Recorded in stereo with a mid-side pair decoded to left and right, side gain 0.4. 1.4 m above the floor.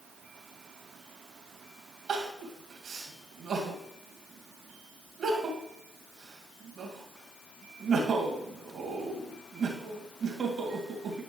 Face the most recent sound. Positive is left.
turn(degrees=-55)